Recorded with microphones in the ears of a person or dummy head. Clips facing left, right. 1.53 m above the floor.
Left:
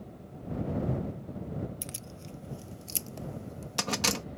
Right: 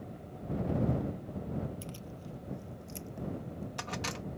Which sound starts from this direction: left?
Keys jangling, at 1.8 s.